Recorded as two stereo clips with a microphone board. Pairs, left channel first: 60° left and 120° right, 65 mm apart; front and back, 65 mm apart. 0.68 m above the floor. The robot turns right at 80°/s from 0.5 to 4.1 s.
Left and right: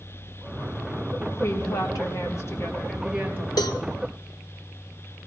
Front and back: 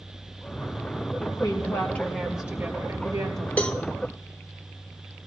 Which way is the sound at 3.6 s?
65° left.